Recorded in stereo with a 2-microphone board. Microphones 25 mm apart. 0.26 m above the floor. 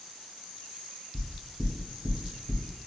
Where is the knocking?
20° right (ahead or behind), 0.8 m.